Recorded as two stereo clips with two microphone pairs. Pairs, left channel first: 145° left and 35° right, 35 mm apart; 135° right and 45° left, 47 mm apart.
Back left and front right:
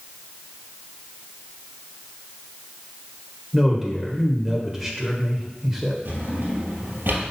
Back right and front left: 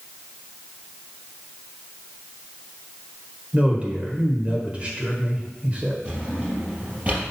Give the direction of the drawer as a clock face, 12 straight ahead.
1 o'clock.